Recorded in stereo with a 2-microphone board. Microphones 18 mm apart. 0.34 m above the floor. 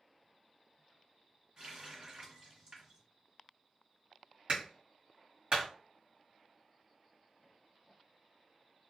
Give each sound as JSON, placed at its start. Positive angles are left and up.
{"t": 1.6, "sound": "a running tap", "side_deg": -40, "distance_m": 1.3}
{"t": 4.5, "sound": "a clap", "side_deg": -55, "distance_m": 1.8}